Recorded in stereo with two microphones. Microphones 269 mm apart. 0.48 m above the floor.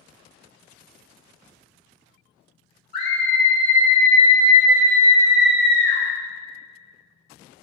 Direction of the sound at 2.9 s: 35° left (ahead or behind).